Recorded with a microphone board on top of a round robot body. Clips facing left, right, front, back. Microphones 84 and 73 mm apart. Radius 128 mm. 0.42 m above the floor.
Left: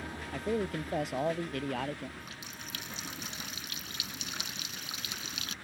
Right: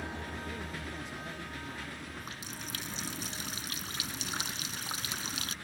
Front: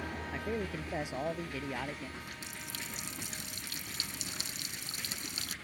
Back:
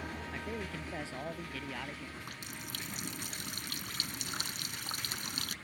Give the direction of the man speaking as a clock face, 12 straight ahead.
10 o'clock.